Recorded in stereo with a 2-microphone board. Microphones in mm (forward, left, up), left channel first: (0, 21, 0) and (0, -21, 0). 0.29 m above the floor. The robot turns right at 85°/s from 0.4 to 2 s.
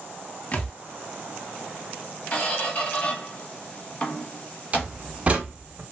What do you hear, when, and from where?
0.5 s a thud: 35° left (ahead or behind), 0.6 m; by 0.8 s 15° left (ahead or behind), 0.6 m
2.3 s a squeak: 30° left (ahead or behind), 0.9 m
4.7 s a door slam: 30° right (ahead or behind), 0.6 m